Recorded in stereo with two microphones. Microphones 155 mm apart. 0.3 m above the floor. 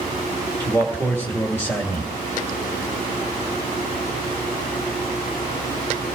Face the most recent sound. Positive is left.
turn(degrees=15)  # may be behind; listen again after turning